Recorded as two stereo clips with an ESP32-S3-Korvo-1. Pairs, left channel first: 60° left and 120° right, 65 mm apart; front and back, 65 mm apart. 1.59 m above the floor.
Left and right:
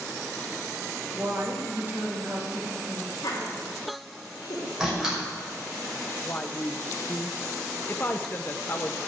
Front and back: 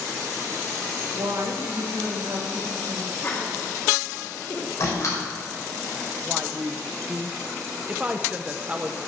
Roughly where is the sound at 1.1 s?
Behind.